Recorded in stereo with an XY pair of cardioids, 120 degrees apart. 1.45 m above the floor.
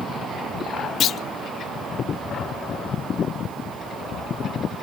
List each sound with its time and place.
1.0 s a clunk: 55° left, 0.5 m